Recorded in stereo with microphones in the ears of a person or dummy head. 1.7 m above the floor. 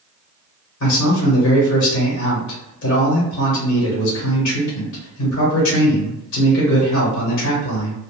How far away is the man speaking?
About 1.1 m.